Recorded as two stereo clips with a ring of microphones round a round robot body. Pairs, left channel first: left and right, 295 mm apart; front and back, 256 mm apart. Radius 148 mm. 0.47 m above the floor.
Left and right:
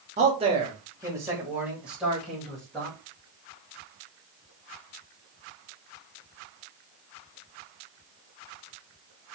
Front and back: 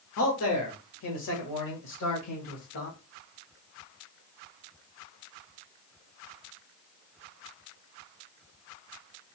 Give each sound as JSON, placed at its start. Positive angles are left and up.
{"t": 0.2, "sound": "a man speaking", "azimuth_deg": -25, "distance_m": 1.2}